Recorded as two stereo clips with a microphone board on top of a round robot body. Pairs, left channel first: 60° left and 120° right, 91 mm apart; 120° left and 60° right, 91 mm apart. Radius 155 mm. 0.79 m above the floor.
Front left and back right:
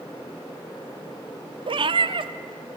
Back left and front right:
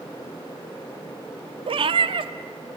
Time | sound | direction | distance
1.7 | a cat meowing | 90° right | 0.7 m